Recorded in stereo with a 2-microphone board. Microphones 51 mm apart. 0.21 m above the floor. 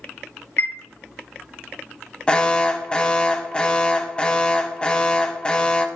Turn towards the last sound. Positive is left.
turn(degrees=20)  # may be behind; listen again after turning